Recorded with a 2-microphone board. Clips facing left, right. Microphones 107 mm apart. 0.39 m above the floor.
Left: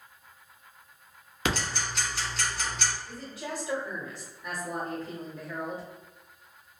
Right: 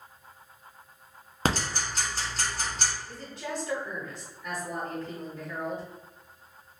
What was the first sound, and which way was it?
Ticking, 40° right (ahead or behind).